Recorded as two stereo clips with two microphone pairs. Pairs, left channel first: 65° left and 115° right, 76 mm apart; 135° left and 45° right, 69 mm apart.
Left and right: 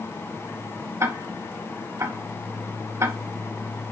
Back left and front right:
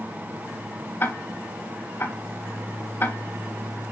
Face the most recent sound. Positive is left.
turn(degrees=-165)